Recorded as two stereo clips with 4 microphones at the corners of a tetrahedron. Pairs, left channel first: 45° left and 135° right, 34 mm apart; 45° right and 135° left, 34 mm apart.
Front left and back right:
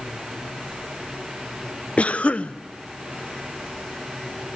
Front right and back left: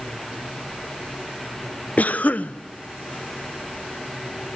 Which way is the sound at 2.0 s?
Straight ahead.